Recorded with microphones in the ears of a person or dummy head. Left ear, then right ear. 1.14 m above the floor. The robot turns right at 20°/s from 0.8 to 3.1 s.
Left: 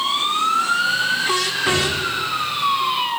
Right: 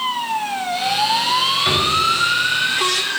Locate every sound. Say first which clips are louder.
1.6 s a drawer: right 2 dB; 30° right (ahead or behind), 3 m; by 2.0 s 35° right (ahead or behind), 3 m